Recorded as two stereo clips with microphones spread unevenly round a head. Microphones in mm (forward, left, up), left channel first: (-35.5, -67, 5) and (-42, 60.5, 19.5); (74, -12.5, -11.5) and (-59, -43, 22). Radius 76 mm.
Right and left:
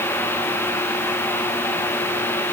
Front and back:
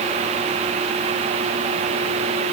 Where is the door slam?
No door slam in this recording.